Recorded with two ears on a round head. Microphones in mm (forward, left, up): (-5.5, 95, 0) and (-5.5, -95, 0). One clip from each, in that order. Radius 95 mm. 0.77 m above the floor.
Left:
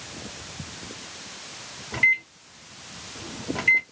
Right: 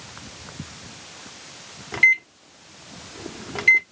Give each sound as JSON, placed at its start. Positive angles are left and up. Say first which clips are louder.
{"t": 1.9, "sound": "a microwave", "louder": "right 4 dB", "side_deg": -30, "distance_m": 0.8}